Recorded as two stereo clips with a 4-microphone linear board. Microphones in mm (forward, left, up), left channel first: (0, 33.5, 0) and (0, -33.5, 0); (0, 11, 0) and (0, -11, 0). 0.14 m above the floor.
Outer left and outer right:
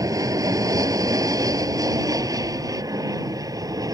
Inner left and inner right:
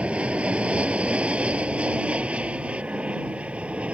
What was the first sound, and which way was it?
An aircraft, 60° right (ahead or behind).